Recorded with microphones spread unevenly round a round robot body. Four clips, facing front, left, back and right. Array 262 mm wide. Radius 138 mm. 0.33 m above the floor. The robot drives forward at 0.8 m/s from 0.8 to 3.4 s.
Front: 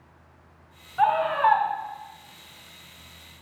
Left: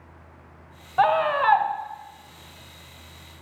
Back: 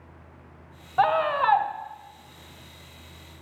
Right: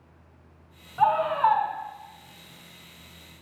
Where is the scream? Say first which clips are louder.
Left 1 dB, front 1 dB; 150° left, 1.4 m; by 1.7 s 160° left, 1.8 m.